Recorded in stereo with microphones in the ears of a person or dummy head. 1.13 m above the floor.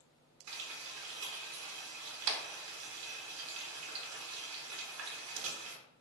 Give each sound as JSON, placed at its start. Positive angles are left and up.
{"t": 0.5, "sound": "frying", "side_deg": -70, "distance_m": 0.6}